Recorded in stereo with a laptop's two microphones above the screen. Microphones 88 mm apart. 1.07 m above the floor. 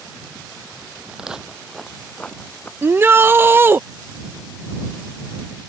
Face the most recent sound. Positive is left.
turn(degrees=-25)  # may be behind; listen again after turning